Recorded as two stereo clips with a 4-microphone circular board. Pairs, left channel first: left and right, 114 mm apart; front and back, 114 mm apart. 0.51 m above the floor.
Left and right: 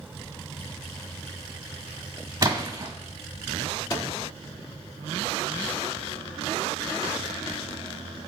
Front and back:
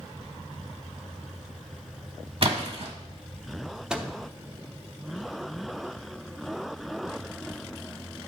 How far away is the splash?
About 1.4 m.